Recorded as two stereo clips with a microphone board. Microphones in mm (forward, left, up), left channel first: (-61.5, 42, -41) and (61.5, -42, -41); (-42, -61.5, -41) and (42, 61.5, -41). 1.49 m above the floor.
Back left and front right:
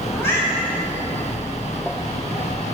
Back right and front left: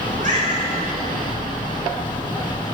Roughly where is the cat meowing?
Left.